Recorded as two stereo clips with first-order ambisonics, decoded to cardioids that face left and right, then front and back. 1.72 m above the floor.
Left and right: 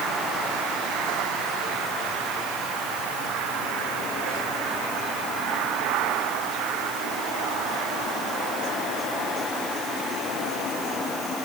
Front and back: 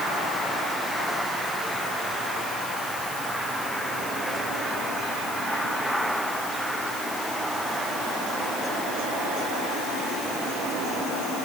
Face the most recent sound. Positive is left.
No sound to turn to.